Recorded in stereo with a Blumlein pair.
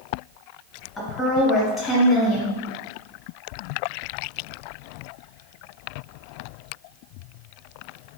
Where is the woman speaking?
5° left, 1.5 m.